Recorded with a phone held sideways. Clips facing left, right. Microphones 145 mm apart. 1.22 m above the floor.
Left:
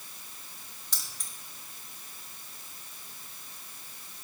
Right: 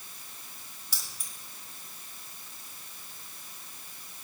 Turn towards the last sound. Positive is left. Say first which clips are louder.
# even
turn(degrees=-10)  # may be behind; listen again after turning